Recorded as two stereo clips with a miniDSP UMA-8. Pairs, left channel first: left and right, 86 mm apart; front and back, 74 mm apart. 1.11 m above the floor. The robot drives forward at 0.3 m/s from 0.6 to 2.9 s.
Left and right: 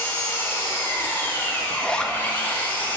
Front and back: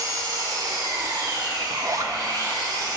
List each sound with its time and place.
0.0 s an engine running: 150° left, 1.8 m; by 3.0 s 160° left, 2.5 m
1.7 s a zipper: 160° left, 0.6 m; by 2.1 s 165° left, 0.7 m